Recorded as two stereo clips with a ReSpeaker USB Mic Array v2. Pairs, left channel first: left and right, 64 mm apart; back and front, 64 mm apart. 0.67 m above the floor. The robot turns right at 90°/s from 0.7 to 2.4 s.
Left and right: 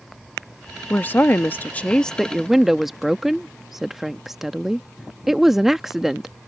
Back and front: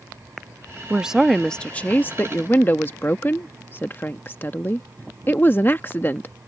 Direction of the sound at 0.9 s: 55° left.